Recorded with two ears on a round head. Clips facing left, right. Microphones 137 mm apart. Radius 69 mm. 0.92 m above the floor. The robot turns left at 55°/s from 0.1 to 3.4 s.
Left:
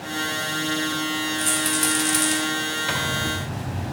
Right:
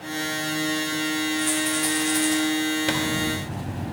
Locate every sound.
1.4 s a rattle: 30° left (ahead or behind), 2.5 m; by 2.4 s 75° left (ahead or behind), 2.5 m
2.9 s a zipper: 55° right (ahead or behind), 0.9 m; by 3.9 s 25° right (ahead or behind), 0.9 m